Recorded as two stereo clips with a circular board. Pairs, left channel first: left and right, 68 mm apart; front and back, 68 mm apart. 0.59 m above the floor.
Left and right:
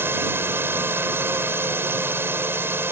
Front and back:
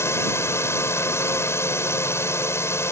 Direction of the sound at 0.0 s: 40° right.